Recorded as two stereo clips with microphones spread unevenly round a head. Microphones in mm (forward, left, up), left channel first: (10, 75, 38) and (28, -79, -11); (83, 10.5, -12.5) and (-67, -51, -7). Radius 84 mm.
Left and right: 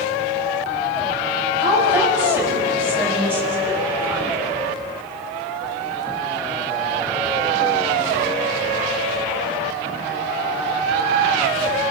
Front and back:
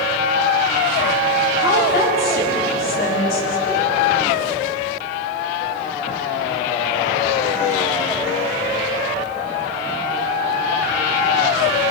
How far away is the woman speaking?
About 6.5 m.